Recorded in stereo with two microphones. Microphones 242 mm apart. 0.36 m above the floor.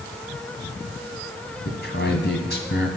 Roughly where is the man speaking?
Left.